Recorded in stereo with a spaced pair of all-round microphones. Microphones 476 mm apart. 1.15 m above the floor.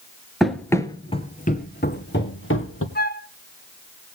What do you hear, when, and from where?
0.4 s running footsteps: centre (ahead or behind), 1.3 m; by 2.9 s 30° left (ahead or behind), 2 m
3.0 s a flute: 20° left (ahead or behind), 0.8 m